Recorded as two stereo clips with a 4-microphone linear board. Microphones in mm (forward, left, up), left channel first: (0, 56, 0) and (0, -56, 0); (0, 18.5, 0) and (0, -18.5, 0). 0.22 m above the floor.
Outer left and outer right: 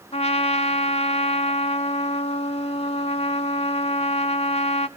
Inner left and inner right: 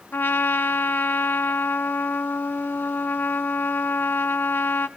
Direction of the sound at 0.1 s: 65° left (ahead or behind).